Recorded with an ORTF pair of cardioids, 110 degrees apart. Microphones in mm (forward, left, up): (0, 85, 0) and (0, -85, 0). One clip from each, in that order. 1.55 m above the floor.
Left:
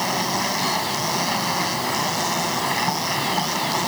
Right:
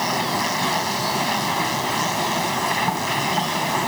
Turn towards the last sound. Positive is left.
turn(degrees=-20)